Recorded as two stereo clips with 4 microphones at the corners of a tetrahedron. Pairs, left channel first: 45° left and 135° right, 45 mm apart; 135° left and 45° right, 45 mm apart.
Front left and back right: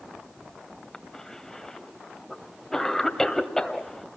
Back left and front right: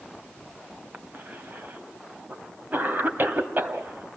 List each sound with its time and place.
0.9 s a cough: 35° right, 2 m